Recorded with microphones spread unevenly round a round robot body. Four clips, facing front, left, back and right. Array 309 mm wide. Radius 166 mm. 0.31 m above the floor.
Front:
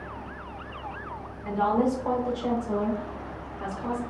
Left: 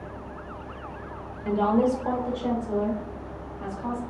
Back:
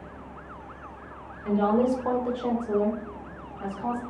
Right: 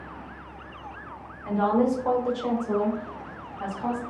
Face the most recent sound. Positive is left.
turn(degrees=-100)